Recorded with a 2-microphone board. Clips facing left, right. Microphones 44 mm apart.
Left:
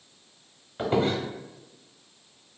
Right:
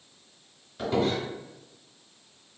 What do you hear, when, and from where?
0.8 s a squeak: 35° left (ahead or behind), 0.6 m